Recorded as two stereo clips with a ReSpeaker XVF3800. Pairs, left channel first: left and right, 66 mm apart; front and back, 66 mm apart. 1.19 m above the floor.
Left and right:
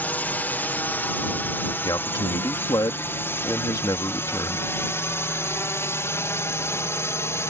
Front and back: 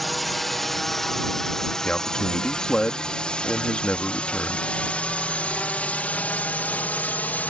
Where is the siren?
No siren in this recording.